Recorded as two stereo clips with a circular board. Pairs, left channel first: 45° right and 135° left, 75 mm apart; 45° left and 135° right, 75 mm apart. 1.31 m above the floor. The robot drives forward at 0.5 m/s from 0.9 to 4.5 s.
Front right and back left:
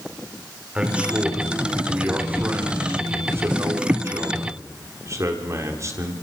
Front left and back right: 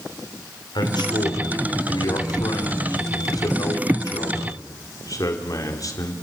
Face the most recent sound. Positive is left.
turn(degrees=85)